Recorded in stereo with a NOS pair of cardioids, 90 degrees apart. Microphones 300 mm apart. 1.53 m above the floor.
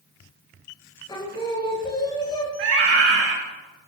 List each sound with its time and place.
1.1 s singing: 15° left, 1.9 m
2.6 s a scream: 50° right, 1.4 m